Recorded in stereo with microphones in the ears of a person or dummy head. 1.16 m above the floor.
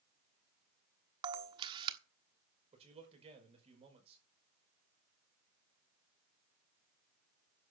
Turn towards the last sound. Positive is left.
turn(degrees=-35)  # may be behind; listen again after turning